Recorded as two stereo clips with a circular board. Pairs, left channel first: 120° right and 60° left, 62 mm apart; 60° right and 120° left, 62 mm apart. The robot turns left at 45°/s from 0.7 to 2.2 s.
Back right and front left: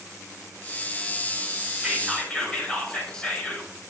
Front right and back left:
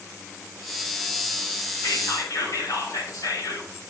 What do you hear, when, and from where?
1.8 s whispering: 25° right, 4.5 m; by 3.7 s 45° right, 4.5 m